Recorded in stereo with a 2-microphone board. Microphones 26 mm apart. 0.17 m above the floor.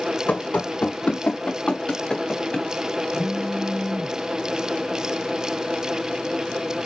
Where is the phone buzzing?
35° right (ahead or behind), 2 m.